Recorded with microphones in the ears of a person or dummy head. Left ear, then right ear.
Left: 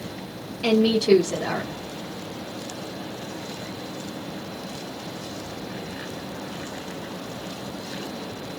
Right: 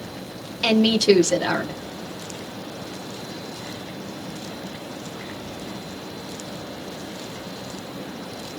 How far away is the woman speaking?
About 1.1 m.